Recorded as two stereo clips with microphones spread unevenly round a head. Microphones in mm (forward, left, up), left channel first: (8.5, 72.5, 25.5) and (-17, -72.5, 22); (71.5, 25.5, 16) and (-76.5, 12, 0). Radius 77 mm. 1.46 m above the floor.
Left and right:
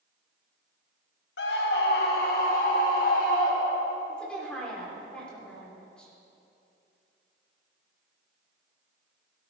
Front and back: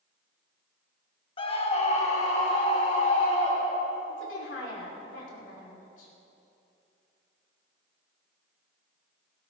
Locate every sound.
1.4 s a scream: 60° left, 1.5 m; by 4.0 s 45° left, 5 m
4.1 s a woman speaking: 5° right, 4.5 m